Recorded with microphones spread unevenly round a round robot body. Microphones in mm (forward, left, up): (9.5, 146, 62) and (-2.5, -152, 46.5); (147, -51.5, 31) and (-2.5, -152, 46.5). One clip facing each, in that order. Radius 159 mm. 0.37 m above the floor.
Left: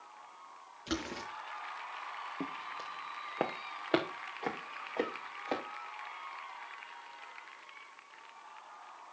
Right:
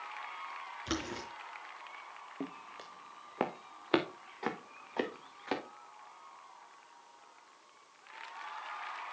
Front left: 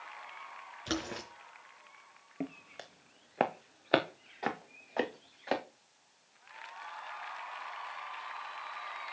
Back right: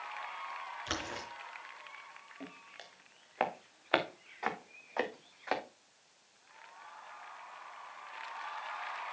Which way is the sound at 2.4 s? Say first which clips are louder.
Even, front left 9 dB; 5° left.